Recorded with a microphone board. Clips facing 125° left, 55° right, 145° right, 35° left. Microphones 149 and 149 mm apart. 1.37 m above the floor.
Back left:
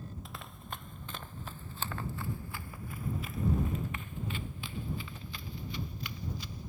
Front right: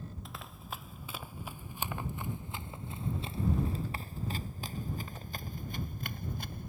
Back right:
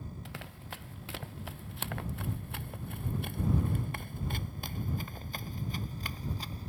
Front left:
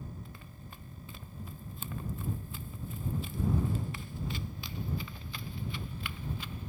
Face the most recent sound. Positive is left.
turn(degrees=-90)